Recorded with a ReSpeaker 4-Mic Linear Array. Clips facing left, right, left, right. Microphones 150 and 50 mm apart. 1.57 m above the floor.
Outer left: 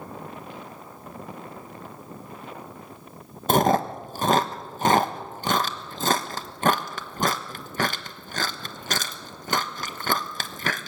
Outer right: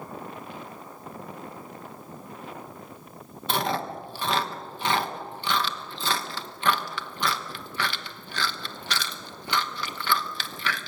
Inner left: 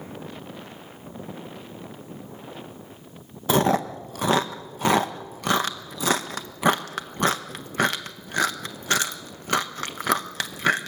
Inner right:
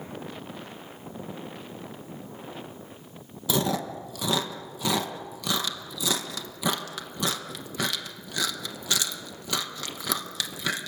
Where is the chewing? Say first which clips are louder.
Outer left 8 dB, inner left 6 dB; 45° left (ahead or behind), 1.2 m.